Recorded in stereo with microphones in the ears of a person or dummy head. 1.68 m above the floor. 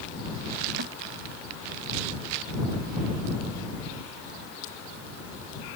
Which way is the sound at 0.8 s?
55° right (ahead or behind).